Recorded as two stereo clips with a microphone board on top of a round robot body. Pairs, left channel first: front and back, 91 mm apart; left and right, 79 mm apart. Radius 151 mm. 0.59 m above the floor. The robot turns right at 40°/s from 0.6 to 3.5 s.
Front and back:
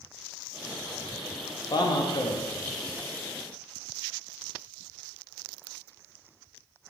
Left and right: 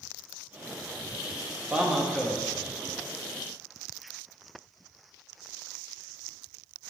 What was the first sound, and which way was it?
A man speaking, 20° right.